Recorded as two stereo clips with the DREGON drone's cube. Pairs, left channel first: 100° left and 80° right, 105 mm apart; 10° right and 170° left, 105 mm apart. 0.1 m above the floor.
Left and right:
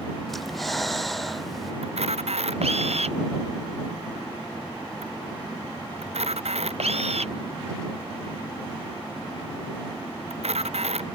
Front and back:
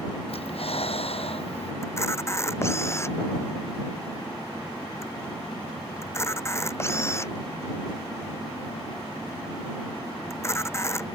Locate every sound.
0.3 s breathing: 10° left
1.8 s a camera shutter: 75° right